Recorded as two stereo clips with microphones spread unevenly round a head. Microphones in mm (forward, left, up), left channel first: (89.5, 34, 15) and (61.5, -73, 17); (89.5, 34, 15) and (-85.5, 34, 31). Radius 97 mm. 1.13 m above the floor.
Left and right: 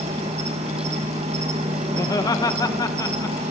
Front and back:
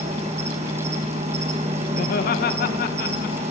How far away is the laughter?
About 1.3 m.